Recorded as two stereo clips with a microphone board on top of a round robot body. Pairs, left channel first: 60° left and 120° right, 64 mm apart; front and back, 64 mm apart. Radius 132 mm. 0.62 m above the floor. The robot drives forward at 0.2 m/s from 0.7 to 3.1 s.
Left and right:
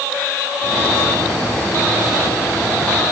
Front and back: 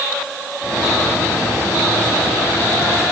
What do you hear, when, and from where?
Only background noise.